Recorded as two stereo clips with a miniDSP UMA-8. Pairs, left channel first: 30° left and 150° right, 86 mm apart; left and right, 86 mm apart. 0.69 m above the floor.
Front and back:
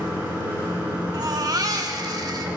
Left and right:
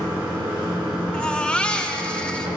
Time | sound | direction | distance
0.0 | running water | 85° right | 3.5 m
1.1 | a baby crying | 170° left | 0.7 m